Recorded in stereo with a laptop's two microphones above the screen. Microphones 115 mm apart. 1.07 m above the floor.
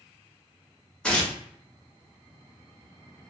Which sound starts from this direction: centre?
Tearing paper, at 1.0 s.